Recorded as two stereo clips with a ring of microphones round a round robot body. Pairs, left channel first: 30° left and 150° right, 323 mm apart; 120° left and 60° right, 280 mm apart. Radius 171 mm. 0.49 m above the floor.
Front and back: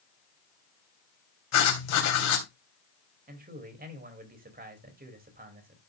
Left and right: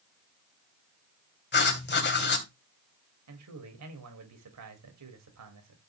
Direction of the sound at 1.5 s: 70° left.